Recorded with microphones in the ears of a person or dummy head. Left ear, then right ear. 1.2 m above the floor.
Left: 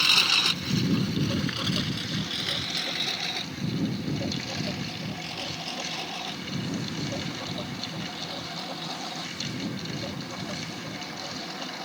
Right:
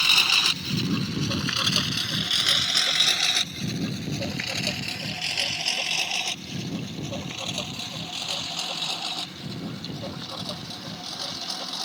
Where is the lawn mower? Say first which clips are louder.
Right 2 dB; 10° right (ahead or behind); by 11.8 s 80° right.